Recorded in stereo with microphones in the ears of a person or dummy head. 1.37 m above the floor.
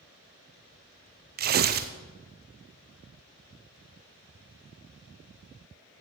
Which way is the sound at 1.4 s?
45° right (ahead or behind).